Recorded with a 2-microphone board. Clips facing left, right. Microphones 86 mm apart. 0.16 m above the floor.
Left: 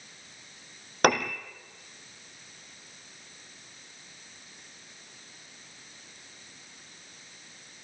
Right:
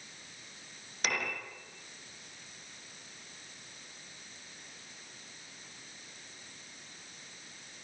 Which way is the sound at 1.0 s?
55° left (ahead or behind).